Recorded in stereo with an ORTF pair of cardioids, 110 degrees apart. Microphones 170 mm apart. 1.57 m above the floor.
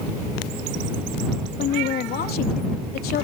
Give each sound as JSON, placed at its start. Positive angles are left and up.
{"t": 1.6, "sound": "a woman speaking", "azimuth_deg": 60}